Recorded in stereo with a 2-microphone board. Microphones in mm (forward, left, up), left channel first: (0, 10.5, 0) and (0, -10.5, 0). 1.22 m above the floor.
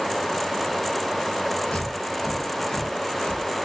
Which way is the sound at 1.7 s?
75° left (ahead or behind).